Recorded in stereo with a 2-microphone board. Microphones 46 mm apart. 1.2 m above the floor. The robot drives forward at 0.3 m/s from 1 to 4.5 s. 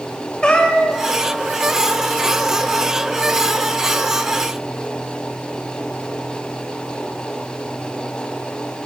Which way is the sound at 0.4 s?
20° left (ahead or behind).